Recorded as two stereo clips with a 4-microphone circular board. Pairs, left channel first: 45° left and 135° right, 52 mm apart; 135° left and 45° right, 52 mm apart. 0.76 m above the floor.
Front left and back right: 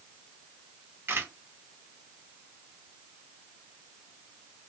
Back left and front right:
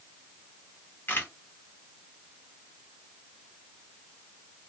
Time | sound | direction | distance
1.1 | a camera shutter | 175° right | 0.9 m